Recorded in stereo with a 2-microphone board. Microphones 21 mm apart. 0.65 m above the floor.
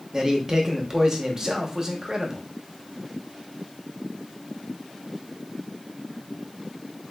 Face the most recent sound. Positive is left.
turn(degrees=-30)  # may be behind; listen again after turning